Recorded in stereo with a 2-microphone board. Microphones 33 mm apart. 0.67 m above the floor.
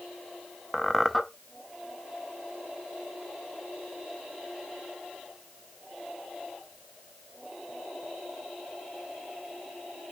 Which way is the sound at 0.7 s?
Centre (ahead or behind).